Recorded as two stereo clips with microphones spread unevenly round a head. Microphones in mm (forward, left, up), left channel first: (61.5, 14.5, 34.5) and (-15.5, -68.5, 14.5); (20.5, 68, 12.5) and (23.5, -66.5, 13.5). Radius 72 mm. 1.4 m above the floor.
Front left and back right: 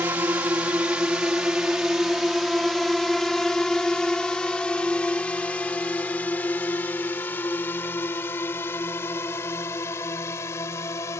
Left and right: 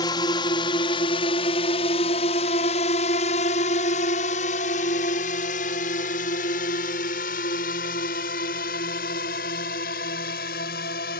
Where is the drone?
155° left; by 11.2 s 120° left.